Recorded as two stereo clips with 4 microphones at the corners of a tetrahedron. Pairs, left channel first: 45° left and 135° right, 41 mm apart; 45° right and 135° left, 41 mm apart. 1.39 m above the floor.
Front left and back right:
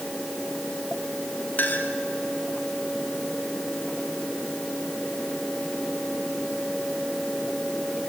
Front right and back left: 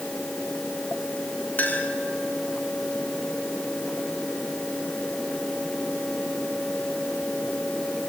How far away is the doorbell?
I don't hear a doorbell.